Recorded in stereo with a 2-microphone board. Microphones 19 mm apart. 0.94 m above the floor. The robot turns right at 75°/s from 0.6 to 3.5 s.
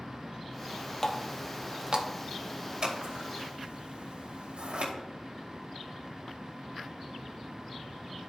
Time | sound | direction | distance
1.0 | a running tap | 25° left (ahead or behind) | 0.8 m
2.8 | scissors | 40° right (ahead or behind) | 2 m